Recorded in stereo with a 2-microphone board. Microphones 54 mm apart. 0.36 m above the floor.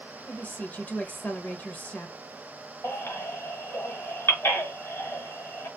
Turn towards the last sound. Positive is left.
turn(degrees=45)  # may be behind; listen again after turning